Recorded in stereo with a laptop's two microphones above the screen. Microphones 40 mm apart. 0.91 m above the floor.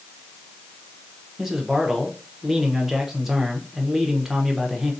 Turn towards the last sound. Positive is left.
turn(degrees=-5)  # may be behind; listen again after turning